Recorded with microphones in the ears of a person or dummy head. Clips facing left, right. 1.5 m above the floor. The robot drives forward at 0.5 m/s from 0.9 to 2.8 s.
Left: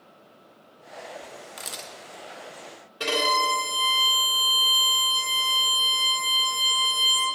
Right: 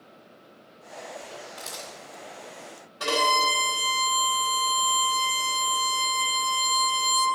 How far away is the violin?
About 2 m.